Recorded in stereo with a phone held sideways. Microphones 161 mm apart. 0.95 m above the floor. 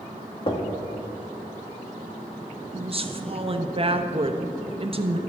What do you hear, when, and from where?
0.5 s knocking: 35° left (ahead or behind), 1.6 m
2.7 s a woman speaking: 40° right (ahead or behind), 1.1 m